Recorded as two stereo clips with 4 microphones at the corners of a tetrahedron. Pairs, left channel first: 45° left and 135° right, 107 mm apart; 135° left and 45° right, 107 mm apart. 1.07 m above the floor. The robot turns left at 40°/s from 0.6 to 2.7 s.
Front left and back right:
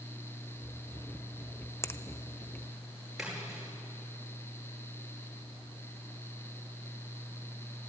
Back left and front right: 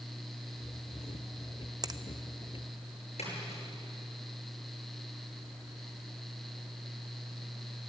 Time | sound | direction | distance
1.8 | a finger snap | 10° right | 0.6 m
3.2 | a splash | 140° left | 9.5 m